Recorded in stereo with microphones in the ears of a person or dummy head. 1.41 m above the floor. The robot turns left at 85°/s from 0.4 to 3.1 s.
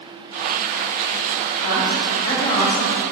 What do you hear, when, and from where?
1.6 s a man speaking: 105° left, 6 m; by 2.9 s straight ahead, 6 m